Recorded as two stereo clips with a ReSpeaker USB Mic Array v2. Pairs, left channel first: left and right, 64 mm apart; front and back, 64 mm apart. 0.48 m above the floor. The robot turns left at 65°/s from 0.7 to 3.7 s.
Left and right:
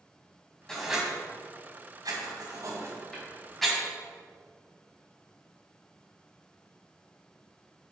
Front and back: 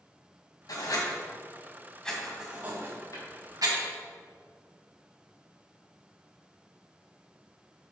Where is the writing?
10° left, 2 m; by 3.8 s 175° left, 2 m.